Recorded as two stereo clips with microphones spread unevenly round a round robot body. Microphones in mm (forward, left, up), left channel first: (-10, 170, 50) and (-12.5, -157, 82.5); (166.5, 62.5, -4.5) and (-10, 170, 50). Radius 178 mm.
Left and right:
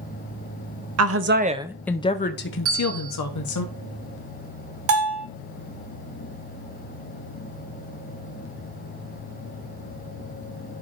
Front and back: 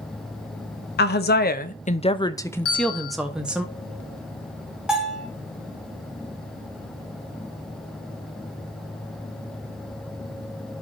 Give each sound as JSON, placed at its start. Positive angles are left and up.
{"t": 1.0, "sound": "a woman speaking", "azimuth_deg": -45, "distance_m": 0.7}
{"t": 2.6, "sound": "a bell", "azimuth_deg": -45, "distance_m": 6.5}
{"t": 4.9, "sound": "a bell", "azimuth_deg": -135, "distance_m": 0.5}